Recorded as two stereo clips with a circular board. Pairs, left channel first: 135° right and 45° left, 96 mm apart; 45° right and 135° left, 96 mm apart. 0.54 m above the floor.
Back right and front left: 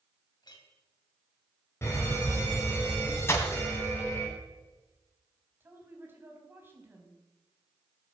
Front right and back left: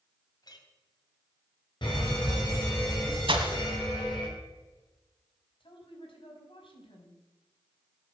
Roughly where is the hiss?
I don't hear a hiss.